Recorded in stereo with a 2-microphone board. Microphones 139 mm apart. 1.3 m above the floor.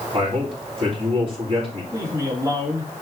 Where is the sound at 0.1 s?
40° right (ahead or behind), 3.5 m.